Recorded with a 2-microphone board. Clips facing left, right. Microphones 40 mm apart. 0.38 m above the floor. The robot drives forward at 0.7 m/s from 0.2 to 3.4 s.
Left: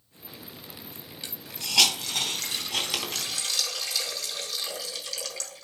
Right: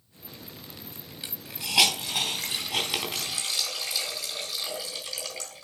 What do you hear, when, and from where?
1.2 s a hiss: 20° right (ahead or behind), 2.5 m; by 5.6 s 10° right (ahead or behind), 4 m